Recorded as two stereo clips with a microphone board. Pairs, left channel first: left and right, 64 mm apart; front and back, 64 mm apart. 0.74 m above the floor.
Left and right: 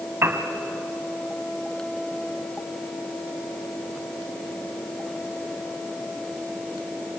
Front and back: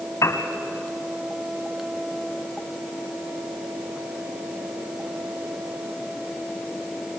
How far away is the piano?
About 1.7 m.